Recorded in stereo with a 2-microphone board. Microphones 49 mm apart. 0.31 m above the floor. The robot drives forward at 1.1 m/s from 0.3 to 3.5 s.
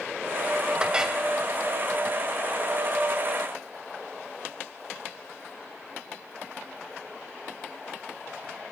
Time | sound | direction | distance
0.8 | a clink | 15° right (ahead or behind) | 0.7 m